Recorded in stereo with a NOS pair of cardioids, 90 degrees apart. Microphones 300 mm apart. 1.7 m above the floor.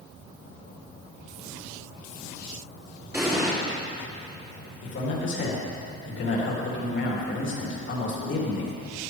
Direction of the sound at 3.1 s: 10° right.